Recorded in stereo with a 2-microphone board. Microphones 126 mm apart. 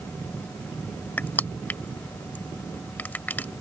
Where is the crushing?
15° left (ahead or behind).